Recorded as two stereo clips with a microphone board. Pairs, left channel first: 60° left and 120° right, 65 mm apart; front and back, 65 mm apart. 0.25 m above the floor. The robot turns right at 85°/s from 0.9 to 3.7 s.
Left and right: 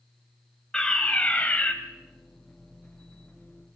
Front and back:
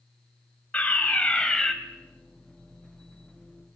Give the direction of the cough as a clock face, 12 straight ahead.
No cough in this recording.